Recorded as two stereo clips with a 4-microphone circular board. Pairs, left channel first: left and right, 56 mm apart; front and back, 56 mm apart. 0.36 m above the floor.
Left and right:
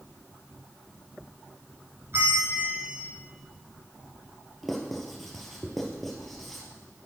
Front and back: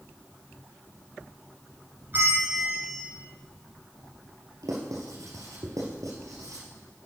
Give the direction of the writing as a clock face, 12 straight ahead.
6 o'clock.